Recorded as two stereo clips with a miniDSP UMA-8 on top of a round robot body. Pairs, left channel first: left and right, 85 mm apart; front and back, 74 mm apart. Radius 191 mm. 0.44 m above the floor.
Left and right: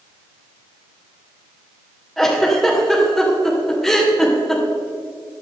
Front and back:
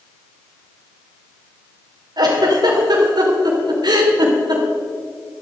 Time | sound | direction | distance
2.2 | a giggle | straight behind | 3 m